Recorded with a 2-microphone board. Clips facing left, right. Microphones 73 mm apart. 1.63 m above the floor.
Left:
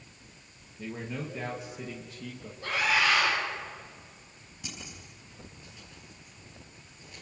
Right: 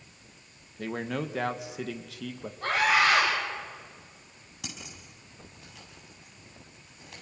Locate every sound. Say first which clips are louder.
0.8 s a man speaking: right 5 dB; 60° right (ahead or behind), 1.6 m; by 2.5 s 80° right, 1.9 m
2.6 s a scream: right 3 dB; 70° right (ahead or behind), 7.5 m
4.6 s scissors: right 1 dB; 70° right (ahead or behind), 6 m